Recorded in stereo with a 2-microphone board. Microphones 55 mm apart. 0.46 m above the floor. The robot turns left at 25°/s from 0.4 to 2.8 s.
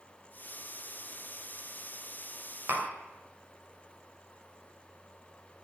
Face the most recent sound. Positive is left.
turn(degrees=-45)  # may be behind; listen again after turning